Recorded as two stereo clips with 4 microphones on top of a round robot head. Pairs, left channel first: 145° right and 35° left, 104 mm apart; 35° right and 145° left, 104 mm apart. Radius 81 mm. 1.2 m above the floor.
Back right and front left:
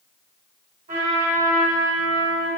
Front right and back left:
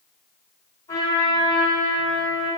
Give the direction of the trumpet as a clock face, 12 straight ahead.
11 o'clock.